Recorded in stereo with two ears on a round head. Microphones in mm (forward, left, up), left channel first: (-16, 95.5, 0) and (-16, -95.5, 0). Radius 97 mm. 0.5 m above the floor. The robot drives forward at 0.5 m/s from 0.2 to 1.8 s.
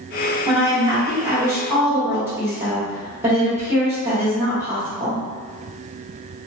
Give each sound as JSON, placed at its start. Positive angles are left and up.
{"t": 0.5, "sound": "a woman speaking", "side_deg": -15, "distance_m": 0.8}